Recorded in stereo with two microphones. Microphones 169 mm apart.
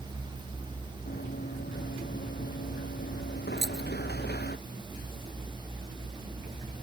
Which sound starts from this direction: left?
Running footsteps, at 1.1 s.